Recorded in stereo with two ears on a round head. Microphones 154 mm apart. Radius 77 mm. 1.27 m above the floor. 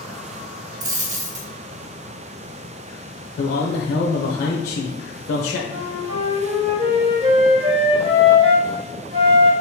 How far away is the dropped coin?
About 0.9 m.